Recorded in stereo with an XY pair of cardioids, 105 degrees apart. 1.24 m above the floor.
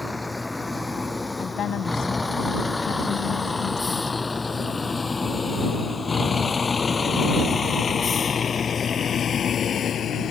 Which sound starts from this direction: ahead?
A vehicle, at 0.0 s.